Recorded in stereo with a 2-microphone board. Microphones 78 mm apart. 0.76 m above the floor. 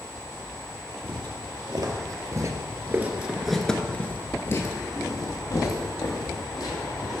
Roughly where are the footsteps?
Right.